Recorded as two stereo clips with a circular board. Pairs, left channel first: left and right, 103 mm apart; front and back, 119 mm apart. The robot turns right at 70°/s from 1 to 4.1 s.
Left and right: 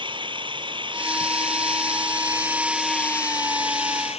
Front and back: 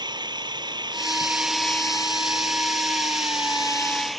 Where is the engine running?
130° right; by 4.2 s 90° left.